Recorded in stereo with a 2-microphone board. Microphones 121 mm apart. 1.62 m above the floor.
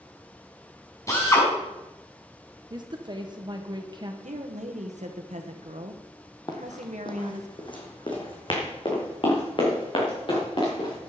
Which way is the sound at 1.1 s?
25° left (ahead or behind).